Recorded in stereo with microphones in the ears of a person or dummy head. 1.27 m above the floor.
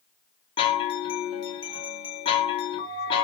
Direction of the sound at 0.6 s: 25° left (ahead or behind).